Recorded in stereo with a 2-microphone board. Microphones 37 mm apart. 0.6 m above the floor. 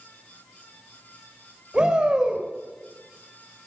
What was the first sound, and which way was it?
A shout, 25° right (ahead or behind).